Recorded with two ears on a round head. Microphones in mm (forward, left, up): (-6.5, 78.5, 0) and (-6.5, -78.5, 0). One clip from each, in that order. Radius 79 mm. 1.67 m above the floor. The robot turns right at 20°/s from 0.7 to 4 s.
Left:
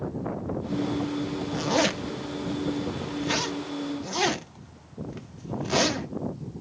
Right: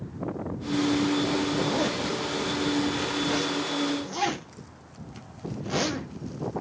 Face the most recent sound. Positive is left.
turn(degrees=20)  # may be behind; listen again after turning